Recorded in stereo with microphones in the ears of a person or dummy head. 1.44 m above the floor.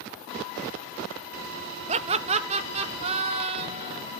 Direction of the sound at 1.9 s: 35° right (ahead or behind).